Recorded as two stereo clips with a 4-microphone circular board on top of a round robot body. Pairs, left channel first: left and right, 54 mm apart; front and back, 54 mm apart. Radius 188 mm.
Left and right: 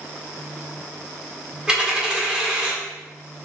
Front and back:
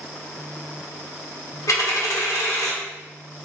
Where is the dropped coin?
15° right, 1.2 m.